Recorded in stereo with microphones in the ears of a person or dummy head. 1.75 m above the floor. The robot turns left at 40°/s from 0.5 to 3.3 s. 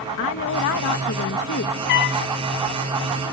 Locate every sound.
0.2 s a woman speaking: 105° left; by 1.8 s 55° left
1.9 s a trumpet: 65° left (ahead or behind); by 2.2 s 80° left